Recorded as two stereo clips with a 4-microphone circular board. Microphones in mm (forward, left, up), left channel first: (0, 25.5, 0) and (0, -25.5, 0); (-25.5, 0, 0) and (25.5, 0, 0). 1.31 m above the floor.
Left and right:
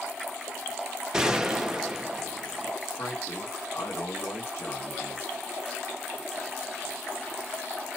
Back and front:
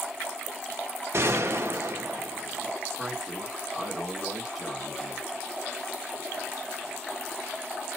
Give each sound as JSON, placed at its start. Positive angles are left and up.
{"t": 1.1, "sound": "a gunshot", "azimuth_deg": -15, "distance_m": 0.6}
{"t": 3.0, "sound": "a man speaking", "azimuth_deg": 85, "distance_m": 1.5}